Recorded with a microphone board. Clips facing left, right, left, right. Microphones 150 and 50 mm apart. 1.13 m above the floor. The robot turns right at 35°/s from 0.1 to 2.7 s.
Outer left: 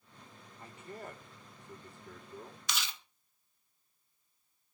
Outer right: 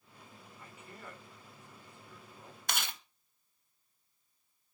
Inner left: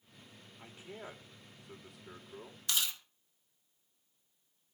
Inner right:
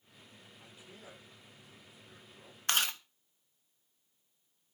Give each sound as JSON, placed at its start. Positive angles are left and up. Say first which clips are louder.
{"t": 0.6, "sound": "a man speaking", "louder": "outer left 6 dB, inner left 7 dB", "side_deg": 25, "distance_m": 3.5}
{"t": 2.7, "sound": "chewing", "louder": "outer right 2 dB, inner right 5 dB", "side_deg": -55, "distance_m": 1.1}